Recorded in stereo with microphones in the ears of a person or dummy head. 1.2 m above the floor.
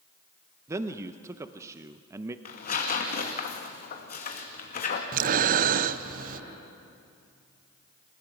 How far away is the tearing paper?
About 2 m.